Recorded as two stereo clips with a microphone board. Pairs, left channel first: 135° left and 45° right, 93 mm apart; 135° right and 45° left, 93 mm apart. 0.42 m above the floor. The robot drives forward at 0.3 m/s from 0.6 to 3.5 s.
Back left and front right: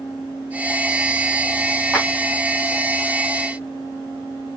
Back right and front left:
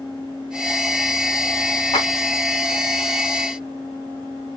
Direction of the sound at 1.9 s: 135° right.